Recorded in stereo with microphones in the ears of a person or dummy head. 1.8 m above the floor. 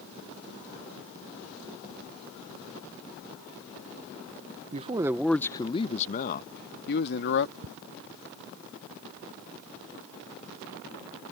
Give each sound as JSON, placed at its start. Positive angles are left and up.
{"t": 4.7, "sound": "a man speaking", "side_deg": -35}
{"t": 7.6, "sound": "ticking", "side_deg": -75}